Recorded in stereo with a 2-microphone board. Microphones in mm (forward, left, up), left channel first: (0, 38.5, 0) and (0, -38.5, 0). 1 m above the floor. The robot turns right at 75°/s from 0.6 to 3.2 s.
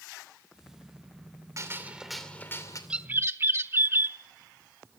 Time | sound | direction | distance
1.6 | a gunshot | 40° right | 3 m
2.9 | a bird | 10° right (ahead or behind) | 0.9 m